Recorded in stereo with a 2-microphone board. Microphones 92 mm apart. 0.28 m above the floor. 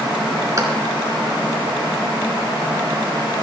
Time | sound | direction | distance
0.6 | a clap | 35° right (ahead or behind) | 3.5 m